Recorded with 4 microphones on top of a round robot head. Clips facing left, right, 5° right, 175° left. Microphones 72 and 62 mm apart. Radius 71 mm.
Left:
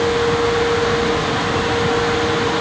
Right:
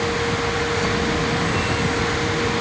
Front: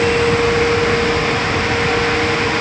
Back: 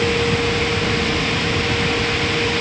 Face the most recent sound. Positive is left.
No sound to turn to.